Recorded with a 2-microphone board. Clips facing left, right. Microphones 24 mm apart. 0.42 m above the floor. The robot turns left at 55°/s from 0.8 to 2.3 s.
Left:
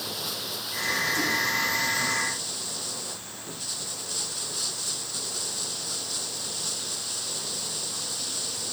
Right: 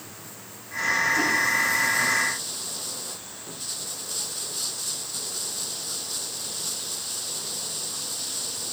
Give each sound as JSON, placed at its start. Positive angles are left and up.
{"t": 0.0, "sound": "running water", "azimuth_deg": 85}